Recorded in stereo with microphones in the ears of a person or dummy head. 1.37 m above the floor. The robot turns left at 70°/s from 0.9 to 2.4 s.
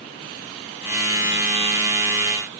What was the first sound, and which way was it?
Only background noise.